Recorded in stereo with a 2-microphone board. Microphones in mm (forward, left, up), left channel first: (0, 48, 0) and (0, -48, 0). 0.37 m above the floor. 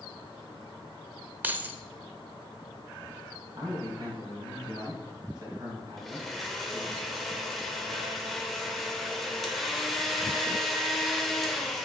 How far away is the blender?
About 0.9 m.